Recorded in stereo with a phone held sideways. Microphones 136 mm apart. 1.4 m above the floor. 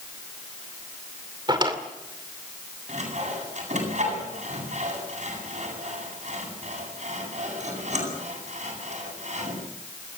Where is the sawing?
65° right (ahead or behind), 8.5 m.